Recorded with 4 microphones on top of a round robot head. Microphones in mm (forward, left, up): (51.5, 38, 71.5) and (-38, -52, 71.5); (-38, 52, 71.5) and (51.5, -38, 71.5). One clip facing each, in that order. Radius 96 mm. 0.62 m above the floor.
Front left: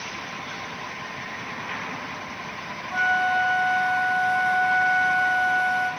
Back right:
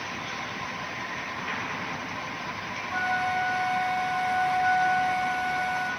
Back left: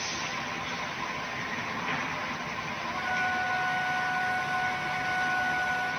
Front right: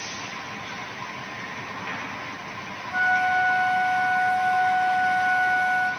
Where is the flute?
35° right, 2.5 m.